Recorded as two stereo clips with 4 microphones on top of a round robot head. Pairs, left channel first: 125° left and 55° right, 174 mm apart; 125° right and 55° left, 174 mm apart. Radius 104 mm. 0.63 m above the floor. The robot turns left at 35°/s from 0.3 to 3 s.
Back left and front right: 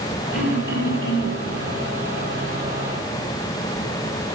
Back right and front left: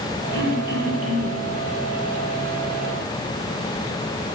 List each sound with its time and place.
0.3 s throat clearing: 30° left, 3.5 m; by 1.4 s 5° right, 3.5 m